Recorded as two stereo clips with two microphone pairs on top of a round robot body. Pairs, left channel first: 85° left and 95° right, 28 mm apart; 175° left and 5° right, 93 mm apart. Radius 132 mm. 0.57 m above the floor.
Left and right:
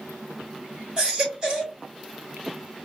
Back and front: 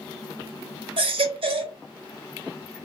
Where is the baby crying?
35° right, 1.3 m.